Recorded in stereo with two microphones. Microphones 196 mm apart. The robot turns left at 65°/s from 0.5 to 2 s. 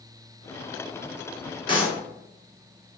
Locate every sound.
1.7 s a clap: 25° left (ahead or behind), 1.3 m; by 2.0 s 30° left (ahead or behind), 1.3 m